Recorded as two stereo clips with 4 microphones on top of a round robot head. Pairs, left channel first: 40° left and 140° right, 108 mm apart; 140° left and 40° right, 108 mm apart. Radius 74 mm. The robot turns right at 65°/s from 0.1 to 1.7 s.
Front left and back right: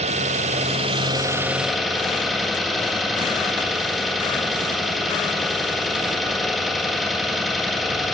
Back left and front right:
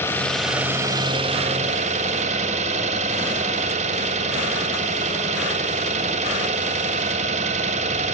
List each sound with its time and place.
0.0 s an engine running: 155° right, 3.5 m; by 8.2 s 50° right, 3.5 m